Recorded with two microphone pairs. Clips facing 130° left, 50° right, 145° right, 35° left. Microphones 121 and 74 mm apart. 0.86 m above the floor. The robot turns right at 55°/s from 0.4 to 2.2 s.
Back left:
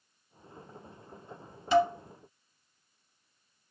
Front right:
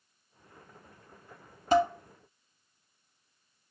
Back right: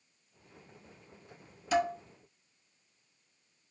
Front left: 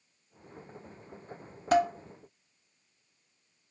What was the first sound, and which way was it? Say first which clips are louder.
Dishes clattering: even, front left 4 dB; straight ahead.